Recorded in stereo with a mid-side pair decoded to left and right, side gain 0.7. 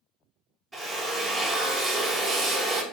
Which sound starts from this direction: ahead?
A drill, at 0.7 s.